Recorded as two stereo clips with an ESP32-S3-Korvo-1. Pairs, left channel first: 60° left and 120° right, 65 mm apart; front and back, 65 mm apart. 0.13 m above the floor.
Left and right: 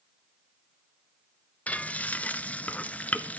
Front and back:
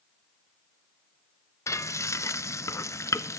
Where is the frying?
Straight ahead, 0.7 m.